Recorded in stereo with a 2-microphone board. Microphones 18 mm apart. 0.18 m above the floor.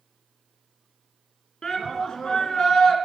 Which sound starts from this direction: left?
A shout, at 1.6 s.